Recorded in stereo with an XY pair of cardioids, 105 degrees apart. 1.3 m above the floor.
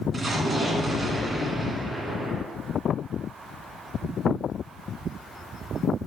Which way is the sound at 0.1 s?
40° right.